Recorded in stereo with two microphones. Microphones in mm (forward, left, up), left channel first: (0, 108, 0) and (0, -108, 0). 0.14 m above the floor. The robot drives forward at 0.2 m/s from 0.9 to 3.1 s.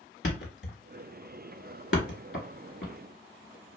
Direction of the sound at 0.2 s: 60° left (ahead or behind).